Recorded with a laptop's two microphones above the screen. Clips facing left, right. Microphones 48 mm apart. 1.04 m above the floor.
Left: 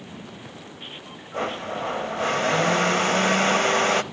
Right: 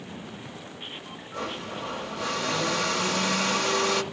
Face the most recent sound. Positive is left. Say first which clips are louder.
# left 6 dB
turn(degrees=40)  # may be behind; listen again after turning